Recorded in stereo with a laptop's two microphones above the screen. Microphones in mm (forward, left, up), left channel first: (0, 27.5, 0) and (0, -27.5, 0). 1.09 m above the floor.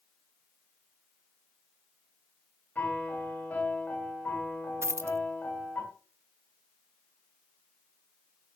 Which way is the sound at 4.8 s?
50° right (ahead or behind).